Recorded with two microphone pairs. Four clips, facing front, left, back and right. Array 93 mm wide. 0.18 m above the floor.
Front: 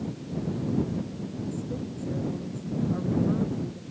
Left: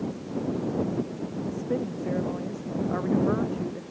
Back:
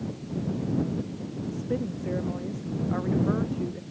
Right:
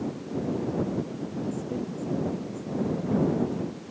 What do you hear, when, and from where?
1.5 s a woman speaking: 120° left; by 3.8 s 115° left